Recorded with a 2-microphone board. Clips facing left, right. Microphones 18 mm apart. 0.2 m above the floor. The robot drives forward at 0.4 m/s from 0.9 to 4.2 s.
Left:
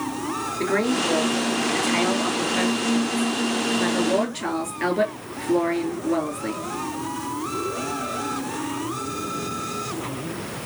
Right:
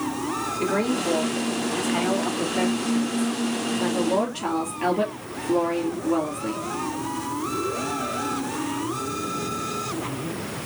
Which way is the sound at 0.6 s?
60° left (ahead or behind).